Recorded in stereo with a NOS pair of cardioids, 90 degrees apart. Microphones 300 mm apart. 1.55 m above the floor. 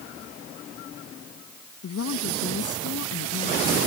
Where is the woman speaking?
50° left.